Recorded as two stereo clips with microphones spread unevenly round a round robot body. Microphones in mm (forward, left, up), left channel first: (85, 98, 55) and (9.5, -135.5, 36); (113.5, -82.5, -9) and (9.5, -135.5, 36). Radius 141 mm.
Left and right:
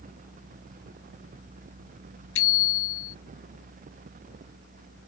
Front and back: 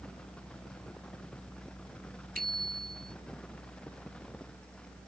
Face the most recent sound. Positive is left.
turn(degrees=120)